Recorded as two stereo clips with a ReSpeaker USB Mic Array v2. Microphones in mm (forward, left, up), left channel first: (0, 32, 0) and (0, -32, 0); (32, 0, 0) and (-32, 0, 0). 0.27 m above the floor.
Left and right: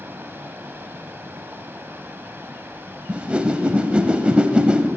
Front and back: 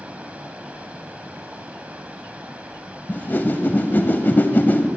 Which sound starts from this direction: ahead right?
A whoosh, at 3.1 s.